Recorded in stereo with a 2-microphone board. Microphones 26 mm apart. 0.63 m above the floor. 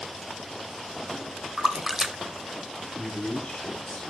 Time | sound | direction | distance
1.6 | a splash | 25° right (ahead or behind) | 0.6 m
3.0 | a man speaking | 50° left (ahead or behind) | 3 m